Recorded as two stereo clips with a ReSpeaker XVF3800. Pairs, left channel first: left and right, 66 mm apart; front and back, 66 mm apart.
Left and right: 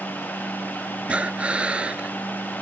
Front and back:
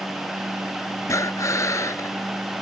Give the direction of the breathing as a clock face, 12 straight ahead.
1 o'clock.